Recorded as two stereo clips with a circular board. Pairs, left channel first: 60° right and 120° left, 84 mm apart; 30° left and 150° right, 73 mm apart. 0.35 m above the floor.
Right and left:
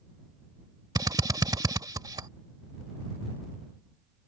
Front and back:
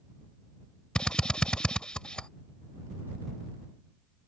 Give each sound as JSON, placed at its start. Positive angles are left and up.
{"t": 0.9, "sound": "a drill", "azimuth_deg": 105}